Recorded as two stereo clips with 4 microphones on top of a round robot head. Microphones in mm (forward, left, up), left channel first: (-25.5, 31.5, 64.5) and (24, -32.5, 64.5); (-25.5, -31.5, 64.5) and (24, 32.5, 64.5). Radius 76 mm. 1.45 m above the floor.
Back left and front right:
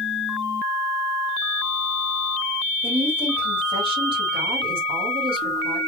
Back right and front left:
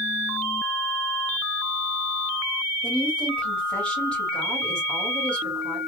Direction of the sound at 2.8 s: 50° right.